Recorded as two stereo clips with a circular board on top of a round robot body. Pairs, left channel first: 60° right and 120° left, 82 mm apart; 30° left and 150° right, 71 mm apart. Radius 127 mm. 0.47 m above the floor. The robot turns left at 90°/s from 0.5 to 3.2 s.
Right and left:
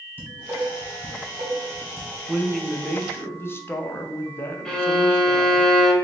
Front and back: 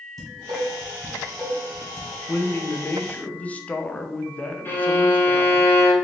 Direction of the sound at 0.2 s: 175° right.